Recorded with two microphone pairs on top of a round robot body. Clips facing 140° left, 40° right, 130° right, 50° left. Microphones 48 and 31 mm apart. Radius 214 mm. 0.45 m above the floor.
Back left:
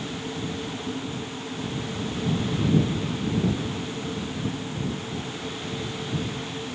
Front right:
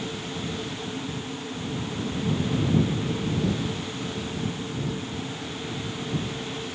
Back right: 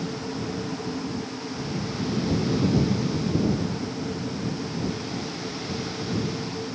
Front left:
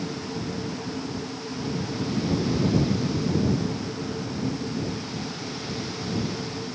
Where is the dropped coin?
I don't hear a dropped coin.